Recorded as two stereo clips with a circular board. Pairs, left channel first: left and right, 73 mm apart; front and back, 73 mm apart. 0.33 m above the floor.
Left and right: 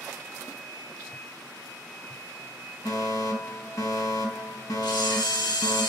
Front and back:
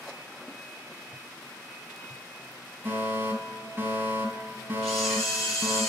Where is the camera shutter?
85° left, 7 m.